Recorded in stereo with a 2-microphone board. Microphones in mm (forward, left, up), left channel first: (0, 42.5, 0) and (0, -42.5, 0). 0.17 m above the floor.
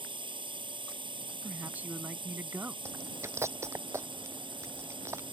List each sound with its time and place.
0.0 s a drone: 70° right (ahead or behind)
1.4 s a man speaking: 20° right (ahead or behind)
2.9 s chewing: 30° right (ahead or behind)